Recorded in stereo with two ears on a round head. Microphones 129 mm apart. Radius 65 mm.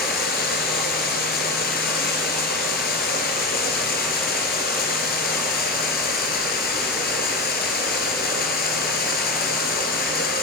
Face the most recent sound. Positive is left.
turn(degrees=65)  # may be behind; listen again after turning